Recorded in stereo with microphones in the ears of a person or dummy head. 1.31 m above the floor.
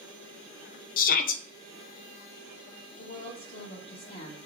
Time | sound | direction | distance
1.0 | a shout | 45° left (ahead or behind) | 0.5 m
3.0 | a woman speaking | 25° left (ahead or behind) | 1.4 m